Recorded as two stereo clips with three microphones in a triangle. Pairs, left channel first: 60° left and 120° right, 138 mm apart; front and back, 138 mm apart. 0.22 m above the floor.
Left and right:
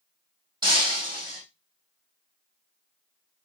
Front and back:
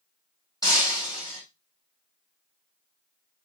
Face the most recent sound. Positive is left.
turn(degrees=-65)